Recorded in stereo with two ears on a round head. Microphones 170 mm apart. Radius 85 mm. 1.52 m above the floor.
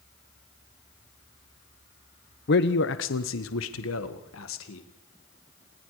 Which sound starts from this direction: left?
A man speaking, at 2.5 s.